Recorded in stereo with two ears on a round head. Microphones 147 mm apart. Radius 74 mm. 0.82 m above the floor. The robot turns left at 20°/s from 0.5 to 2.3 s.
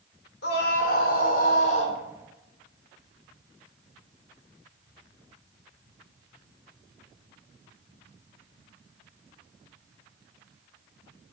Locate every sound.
0.4 s a scream: 65° left (ahead or behind), 3.5 m; by 2.0 s 40° left (ahead or behind), 3.5 m